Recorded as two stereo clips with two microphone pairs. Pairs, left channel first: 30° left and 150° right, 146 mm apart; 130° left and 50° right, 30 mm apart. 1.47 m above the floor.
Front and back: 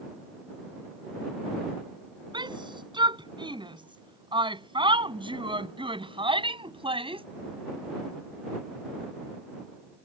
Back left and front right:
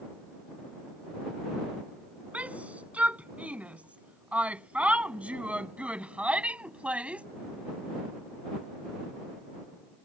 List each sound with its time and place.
2.3 s a shout: 95° right; by 7.3 s 100° right